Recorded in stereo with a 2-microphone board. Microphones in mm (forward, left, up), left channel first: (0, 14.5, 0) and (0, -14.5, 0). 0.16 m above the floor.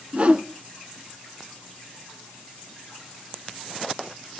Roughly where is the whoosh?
Right.